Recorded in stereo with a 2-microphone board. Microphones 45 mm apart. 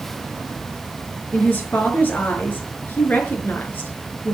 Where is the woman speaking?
40° left (ahead or behind), 5.5 m.